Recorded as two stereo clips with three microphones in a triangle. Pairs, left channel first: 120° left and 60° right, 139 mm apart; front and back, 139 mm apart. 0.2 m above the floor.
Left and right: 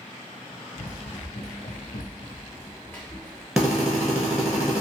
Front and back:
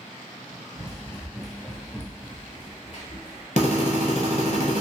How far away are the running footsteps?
About 1.0 m.